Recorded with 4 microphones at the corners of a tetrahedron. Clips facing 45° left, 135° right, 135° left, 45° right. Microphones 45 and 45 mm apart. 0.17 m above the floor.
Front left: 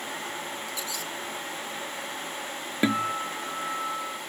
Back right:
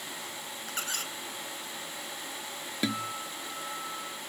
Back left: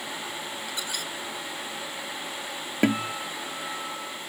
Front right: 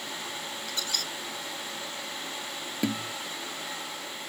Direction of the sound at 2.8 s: 100° left.